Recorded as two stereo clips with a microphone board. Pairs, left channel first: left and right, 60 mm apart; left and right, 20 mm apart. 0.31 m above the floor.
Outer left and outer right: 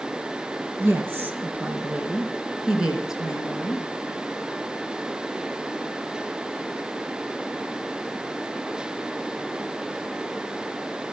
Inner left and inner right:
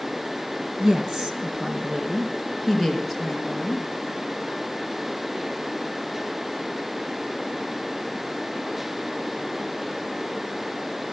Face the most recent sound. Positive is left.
turn(degrees=-5)  # may be behind; listen again after turning